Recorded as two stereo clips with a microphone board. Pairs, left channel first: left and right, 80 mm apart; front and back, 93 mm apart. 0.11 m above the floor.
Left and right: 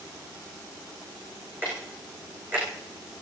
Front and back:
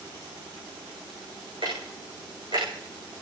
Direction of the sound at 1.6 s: 155° right.